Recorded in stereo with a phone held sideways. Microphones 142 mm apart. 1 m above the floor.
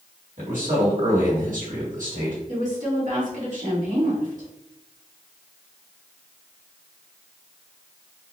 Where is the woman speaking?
65° right (ahead or behind), 2 m.